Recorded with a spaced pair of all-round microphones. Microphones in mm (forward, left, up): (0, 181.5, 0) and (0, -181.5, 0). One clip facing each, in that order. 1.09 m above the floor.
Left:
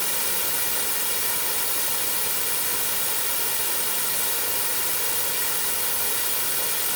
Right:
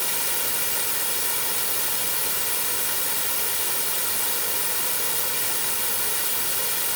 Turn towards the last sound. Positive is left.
No sound to turn to.